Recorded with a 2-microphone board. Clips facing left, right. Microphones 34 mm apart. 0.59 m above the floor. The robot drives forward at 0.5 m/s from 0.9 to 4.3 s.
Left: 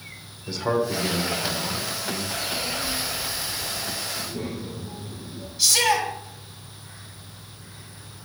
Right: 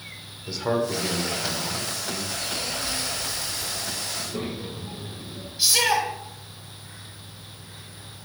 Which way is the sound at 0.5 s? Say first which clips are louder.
Left 1 dB; centre (ahead or behind).